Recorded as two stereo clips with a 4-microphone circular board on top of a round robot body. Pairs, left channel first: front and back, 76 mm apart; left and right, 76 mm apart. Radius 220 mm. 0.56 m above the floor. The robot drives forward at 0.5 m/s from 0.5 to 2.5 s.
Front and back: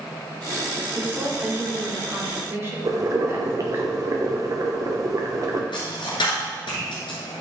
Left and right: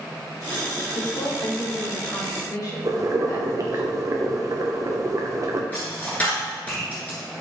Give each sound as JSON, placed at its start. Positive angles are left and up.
{"t": 0.9, "sound": "a woman speaking", "azimuth_deg": 110, "distance_m": 2.5}
{"t": 2.9, "sound": "boiling", "azimuth_deg": -135, "distance_m": 0.9}
{"t": 5.7, "sound": "a dropped coin", "azimuth_deg": 20, "distance_m": 1.0}